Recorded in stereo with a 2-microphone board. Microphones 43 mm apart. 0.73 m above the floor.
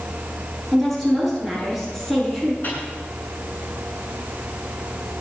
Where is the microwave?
45° left (ahead or behind), 8 m.